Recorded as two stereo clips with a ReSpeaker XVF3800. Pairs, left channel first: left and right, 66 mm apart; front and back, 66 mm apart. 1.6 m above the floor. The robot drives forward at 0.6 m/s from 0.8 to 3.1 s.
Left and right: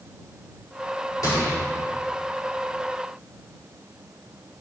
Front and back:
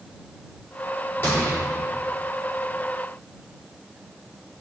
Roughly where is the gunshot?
Ahead left.